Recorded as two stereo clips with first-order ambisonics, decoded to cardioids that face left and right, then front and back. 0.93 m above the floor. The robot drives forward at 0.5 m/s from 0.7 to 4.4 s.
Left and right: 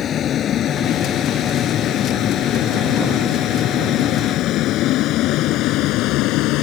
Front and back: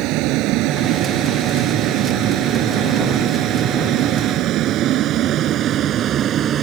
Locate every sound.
0.0 s a vehicle: 150° left; by 6.6 s 125° left